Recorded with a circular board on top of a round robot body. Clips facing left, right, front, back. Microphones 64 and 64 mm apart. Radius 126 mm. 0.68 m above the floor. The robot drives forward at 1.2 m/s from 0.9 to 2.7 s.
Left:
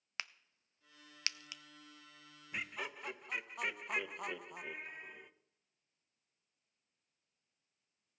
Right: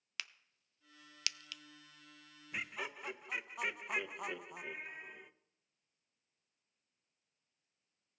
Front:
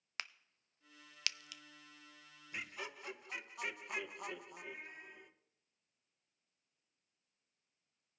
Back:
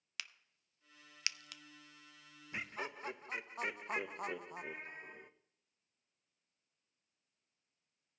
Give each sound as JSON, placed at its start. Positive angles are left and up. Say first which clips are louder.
{"t": 0.2, "sound": "a crack", "louder": "left 2 dB, front 3 dB", "azimuth_deg": 40, "distance_m": 0.5}
{"t": 2.5, "sound": "laughter", "louder": "even, back 3 dB", "azimuth_deg": -175, "distance_m": 0.9}